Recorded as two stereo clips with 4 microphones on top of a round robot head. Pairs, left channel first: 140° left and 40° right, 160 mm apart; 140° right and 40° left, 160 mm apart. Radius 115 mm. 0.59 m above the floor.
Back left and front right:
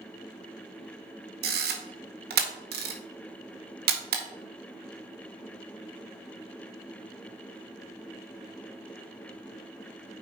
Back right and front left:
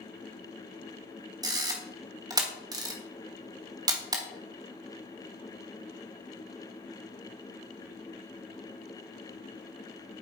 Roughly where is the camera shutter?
Ahead right.